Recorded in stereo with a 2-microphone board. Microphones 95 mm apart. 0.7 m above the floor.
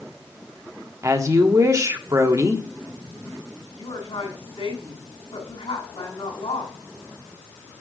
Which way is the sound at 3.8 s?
80° left.